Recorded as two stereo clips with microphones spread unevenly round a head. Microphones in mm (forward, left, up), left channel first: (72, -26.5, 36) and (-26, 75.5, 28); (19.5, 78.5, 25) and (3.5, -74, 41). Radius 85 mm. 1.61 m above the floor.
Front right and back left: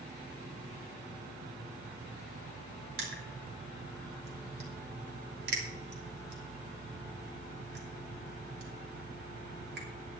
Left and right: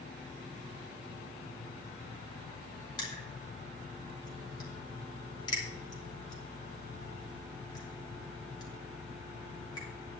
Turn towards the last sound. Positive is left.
turn(degrees=150)